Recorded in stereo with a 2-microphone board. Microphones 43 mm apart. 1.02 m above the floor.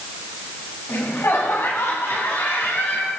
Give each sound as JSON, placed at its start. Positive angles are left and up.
{"t": 0.9, "sound": "laughter", "side_deg": 85, "distance_m": 8.5}